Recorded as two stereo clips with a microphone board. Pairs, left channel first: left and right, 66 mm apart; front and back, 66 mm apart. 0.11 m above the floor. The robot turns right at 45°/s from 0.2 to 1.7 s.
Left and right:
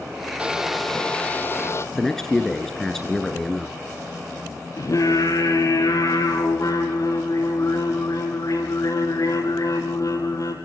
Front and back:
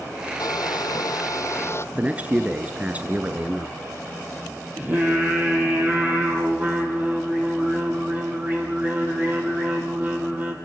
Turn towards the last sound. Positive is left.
turn(degrees=120)